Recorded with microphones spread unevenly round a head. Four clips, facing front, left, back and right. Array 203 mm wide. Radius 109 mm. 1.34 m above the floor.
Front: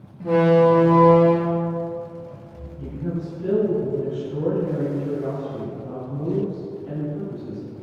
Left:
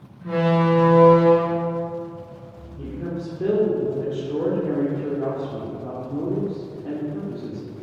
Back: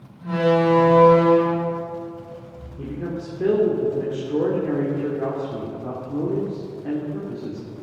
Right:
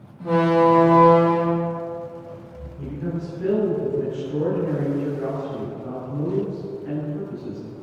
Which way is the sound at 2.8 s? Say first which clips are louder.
Even, even; 160° left.